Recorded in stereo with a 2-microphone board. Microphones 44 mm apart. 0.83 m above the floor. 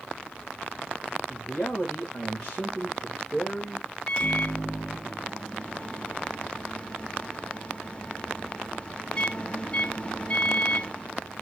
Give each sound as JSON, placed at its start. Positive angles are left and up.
{"t": 1.3, "sound": "a man speaking", "side_deg": 15, "distance_m": 2.5}
{"t": 4.1, "sound": "a microwave", "side_deg": 25, "distance_m": 1.1}